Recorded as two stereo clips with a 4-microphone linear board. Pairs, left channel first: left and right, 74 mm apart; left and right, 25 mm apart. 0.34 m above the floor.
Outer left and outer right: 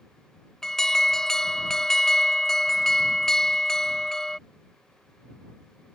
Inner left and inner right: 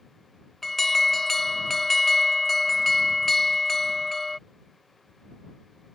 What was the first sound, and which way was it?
An alarm, 5° left (ahead or behind).